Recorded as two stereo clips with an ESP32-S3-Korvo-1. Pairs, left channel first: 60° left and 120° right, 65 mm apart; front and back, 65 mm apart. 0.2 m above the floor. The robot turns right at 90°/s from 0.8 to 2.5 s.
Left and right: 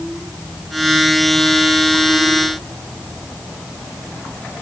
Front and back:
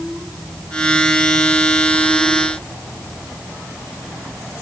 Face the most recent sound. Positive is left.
No sound to turn to.